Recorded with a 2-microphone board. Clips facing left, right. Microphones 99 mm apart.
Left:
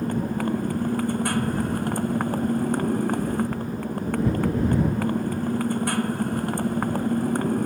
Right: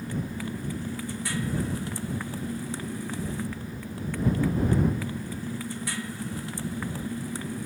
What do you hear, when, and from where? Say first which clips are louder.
0.0 s a motorcycle: left 8 dB; 50° left (ahead or behind)